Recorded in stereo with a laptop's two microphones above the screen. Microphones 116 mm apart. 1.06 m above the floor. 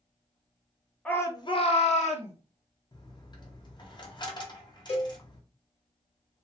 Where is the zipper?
I don't hear a zipper.